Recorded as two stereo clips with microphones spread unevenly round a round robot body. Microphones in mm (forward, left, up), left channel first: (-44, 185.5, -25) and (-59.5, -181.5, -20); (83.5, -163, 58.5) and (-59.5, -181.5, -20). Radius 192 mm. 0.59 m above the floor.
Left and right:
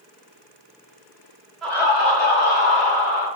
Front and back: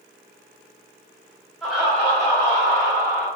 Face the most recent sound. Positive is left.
turn(degrees=105)